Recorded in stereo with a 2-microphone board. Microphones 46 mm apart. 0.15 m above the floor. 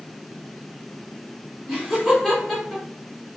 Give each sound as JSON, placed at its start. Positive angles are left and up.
{"t": 1.7, "sound": "laughter", "side_deg": -10, "distance_m": 1.5}